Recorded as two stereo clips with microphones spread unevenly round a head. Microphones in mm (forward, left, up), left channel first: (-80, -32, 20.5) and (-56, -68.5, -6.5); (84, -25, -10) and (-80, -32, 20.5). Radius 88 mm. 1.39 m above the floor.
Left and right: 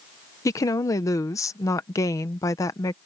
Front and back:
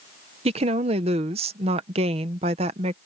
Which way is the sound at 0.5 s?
120° left.